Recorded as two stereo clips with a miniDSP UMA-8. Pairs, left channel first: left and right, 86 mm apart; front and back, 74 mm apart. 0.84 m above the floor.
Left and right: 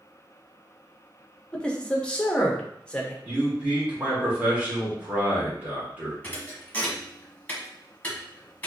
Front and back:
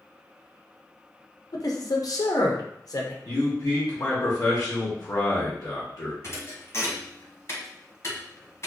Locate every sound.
1.5 s a man speaking: 10° left, 0.7 m
3.2 s a man speaking: 20° right, 1.4 m
6.2 s a thud: 25° left, 1.0 m